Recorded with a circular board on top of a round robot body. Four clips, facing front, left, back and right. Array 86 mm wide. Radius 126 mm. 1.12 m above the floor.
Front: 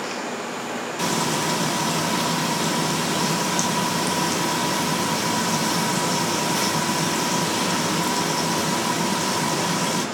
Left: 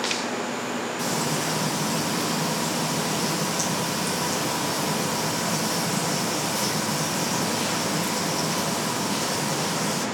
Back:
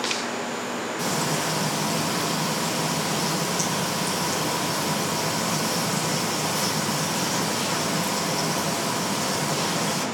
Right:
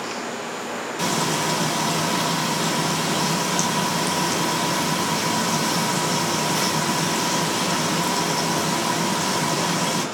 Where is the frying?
45° right, 2.5 m.